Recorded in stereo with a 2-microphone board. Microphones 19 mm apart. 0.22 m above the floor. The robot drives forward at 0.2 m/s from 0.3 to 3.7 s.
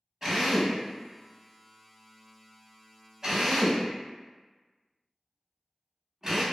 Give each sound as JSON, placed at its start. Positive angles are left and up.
{"t": 0.2, "sound": "a drill", "side_deg": -25, "distance_m": 0.9}